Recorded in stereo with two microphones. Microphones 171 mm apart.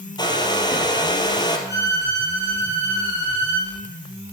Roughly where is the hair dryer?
Left.